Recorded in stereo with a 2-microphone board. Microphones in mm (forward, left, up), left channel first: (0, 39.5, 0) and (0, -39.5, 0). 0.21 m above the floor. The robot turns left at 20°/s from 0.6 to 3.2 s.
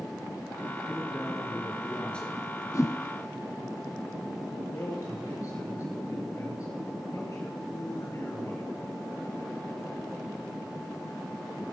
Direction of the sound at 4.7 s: 45° left (ahead or behind).